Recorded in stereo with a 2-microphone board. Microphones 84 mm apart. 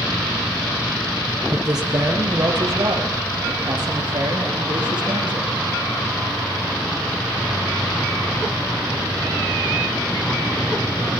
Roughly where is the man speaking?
Right.